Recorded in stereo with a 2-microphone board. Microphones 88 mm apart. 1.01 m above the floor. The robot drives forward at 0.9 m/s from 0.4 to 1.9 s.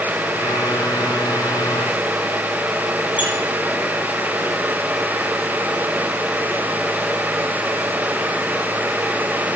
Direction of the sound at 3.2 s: 60° left (ahead or behind).